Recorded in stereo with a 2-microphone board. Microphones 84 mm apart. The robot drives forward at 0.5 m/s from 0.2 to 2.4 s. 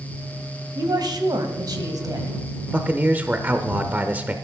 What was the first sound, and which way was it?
A woman speaking, 60° right (ahead or behind).